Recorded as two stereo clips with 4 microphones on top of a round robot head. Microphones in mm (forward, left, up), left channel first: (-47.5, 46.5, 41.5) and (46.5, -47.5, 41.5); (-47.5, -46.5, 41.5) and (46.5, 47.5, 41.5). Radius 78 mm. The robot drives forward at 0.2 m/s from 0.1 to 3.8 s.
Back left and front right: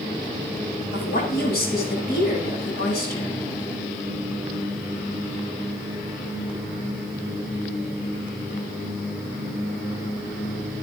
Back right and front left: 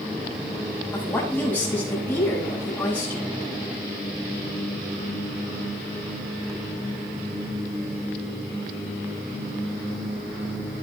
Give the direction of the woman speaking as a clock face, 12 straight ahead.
7 o'clock.